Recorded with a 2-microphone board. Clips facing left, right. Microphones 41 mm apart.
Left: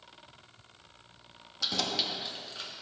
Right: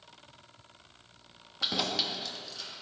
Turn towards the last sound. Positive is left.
turn(degrees=35)  # may be behind; listen again after turning